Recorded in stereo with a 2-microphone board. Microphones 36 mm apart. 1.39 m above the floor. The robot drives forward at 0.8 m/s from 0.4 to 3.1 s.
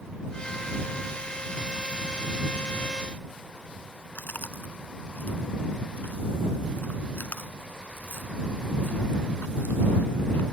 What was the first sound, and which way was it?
Chewing, 75° left (ahead or behind).